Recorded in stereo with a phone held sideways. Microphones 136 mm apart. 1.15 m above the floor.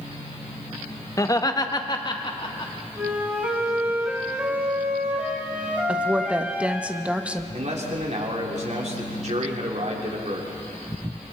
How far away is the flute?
About 4.5 m.